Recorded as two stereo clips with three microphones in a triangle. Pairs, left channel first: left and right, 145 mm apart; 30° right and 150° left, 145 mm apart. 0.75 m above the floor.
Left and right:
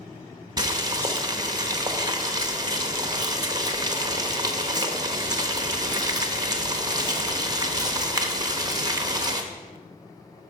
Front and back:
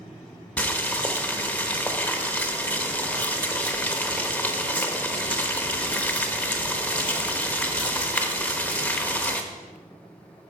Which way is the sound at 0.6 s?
95° right.